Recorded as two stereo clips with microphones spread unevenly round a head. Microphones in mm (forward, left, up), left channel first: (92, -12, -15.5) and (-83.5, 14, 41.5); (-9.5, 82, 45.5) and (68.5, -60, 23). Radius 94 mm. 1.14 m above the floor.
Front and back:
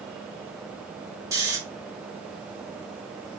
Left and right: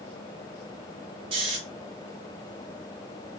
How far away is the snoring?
About 0.6 m.